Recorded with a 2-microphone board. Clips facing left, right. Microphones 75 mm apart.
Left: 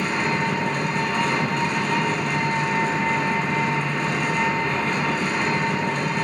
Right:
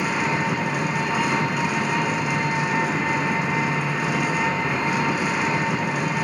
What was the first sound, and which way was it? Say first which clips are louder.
An engine running: even; 10° right (ahead or behind).